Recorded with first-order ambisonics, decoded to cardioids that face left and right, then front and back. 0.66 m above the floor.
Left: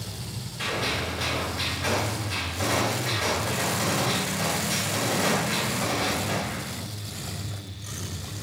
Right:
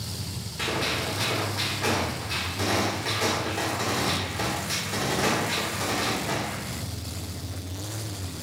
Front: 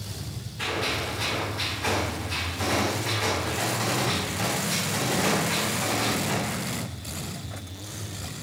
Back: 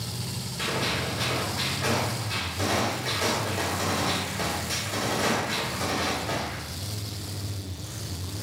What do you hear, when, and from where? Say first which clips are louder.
0.6 s a gunshot: even, front 1 dB; 115° right, 1.5 m